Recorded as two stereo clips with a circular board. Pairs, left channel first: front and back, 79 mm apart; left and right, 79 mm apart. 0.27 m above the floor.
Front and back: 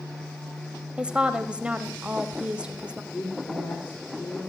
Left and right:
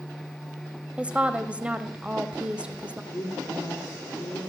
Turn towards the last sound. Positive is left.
turn(degrees=35)